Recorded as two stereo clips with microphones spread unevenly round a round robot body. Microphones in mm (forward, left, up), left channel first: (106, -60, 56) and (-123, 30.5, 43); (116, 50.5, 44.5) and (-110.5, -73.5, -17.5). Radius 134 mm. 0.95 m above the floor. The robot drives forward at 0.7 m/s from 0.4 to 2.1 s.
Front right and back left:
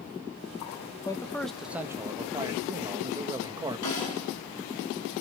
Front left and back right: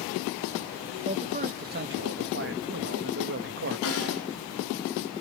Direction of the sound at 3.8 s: 5° right.